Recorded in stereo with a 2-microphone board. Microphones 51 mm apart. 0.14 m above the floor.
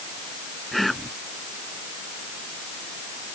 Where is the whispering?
Centre (ahead or behind).